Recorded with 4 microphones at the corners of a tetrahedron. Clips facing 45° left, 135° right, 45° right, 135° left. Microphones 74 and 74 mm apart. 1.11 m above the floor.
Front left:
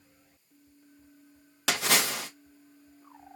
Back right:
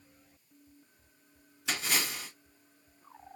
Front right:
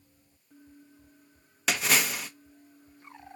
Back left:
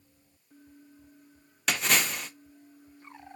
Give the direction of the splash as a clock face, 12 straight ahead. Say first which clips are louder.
Front left 6 dB, even; 11 o'clock.